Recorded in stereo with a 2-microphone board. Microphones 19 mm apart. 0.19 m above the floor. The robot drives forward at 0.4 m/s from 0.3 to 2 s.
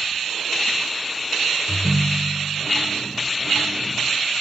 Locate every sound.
1.7 s a ringtone: 60° left (ahead or behind), 0.7 m